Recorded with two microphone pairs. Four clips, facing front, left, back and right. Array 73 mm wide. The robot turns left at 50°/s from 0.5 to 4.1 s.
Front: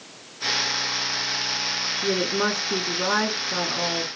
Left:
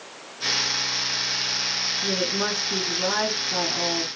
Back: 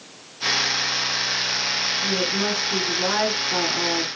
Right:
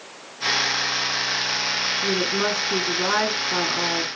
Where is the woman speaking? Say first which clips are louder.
Right 2 dB, front 2 dB; 20° right, 2 m; by 4.2 s 125° right, 2 m.